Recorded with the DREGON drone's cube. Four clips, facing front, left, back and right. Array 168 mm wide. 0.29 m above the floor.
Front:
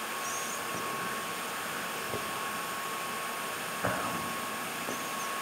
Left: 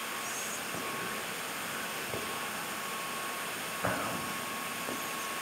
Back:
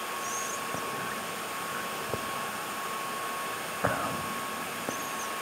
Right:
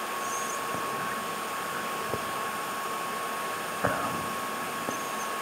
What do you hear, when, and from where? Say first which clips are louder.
0.2 s whispering: right 8 dB, back 2 dB; 130° right, 1.0 m